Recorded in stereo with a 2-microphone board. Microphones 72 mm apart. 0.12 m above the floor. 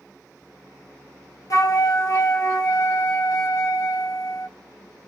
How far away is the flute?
About 0.5 m.